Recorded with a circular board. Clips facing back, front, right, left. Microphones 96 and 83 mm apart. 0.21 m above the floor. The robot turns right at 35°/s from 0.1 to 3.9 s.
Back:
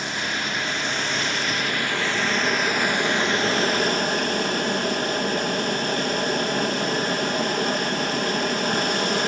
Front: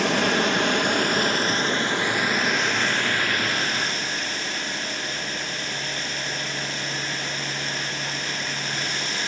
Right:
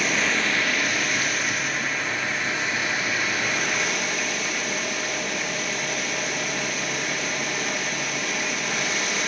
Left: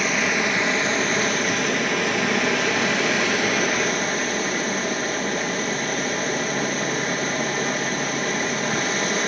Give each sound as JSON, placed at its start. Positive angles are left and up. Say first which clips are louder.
{"t": 0.0, "sound": "running water", "louder": "front 7 dB, left 2 dB", "azimuth_deg": 5, "distance_m": 1.8}